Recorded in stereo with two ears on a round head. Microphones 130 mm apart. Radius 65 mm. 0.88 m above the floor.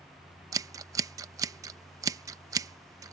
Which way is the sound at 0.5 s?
25° right (ahead or behind).